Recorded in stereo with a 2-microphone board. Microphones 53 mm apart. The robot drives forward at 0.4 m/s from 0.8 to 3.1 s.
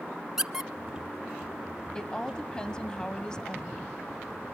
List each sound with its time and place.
0.4 s a squeak: 10° right (ahead or behind), 0.5 m
1.9 s a woman speaking: 15° left (ahead or behind), 1.0 m